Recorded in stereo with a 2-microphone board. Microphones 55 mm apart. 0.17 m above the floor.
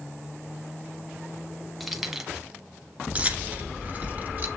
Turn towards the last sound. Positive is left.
turn(degrees=-30)  # may be behind; listen again after turning